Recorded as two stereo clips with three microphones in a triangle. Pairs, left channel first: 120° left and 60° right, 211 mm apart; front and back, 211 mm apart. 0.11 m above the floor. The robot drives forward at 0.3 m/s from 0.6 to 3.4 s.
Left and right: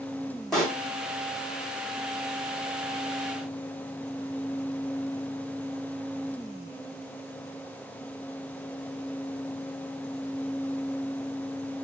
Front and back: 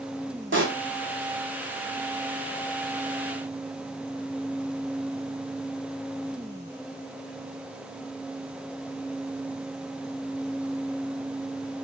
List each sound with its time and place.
0.5 s a pop: 150° right, 1.3 m; by 0.8 s 155° right, 1.3 m